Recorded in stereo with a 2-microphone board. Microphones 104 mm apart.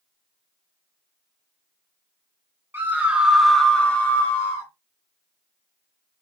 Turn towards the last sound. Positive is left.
turn(degrees=35)  # may be behind; listen again after turning